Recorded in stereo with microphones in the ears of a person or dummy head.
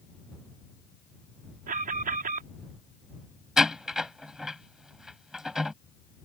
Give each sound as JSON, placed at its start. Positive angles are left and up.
{"t": 1.7, "sound": "an alarm", "side_deg": -50}
{"t": 3.6, "sound": "a door slam", "side_deg": 0}